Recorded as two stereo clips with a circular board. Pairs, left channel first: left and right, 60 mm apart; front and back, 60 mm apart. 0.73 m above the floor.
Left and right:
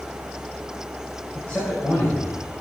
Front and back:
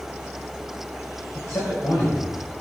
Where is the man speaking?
20° left, 4 m.